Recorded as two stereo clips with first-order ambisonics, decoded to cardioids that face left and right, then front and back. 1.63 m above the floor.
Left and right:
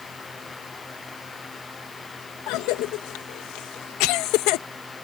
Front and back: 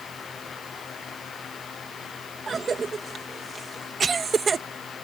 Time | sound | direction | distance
2.5 | a cough | 110° left | ?